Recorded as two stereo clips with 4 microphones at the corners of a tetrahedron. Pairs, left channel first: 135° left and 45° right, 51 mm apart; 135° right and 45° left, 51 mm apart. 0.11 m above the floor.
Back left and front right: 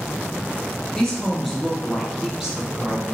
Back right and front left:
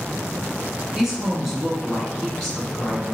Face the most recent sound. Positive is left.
turn(degrees=-65)